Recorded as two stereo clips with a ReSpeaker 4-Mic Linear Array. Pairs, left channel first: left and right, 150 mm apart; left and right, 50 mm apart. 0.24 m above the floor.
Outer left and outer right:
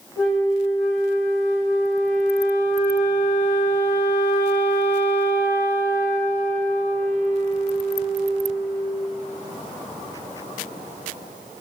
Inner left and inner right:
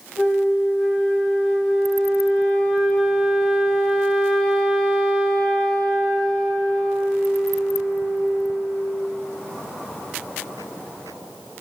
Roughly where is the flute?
Centre.